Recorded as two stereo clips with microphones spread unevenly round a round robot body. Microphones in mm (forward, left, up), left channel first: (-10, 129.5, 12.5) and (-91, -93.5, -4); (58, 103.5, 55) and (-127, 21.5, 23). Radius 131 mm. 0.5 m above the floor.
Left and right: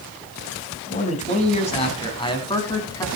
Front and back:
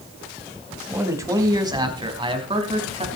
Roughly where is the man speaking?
Behind left.